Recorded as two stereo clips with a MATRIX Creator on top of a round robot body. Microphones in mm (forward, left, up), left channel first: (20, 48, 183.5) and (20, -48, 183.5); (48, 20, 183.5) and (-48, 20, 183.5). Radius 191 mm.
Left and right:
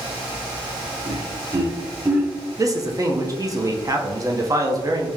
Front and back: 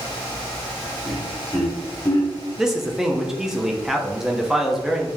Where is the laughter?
110° right, 1.5 m; by 2.3 s 20° right, 1.0 m.